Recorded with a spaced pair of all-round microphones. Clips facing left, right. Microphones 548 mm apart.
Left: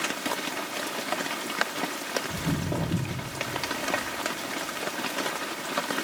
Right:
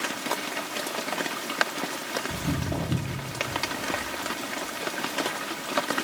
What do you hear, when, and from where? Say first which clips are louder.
2.3 s footsteps: even; 10° right (ahead or behind), 2 m; by 6.0 s 70° right (ahead or behind), 5 m